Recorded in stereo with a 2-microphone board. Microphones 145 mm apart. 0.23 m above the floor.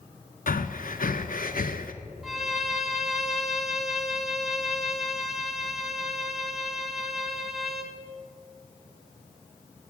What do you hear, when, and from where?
0.5 s breathing: 75° left (ahead or behind), 0.7 m
2.2 s a violin: centre (ahead or behind), 1.2 m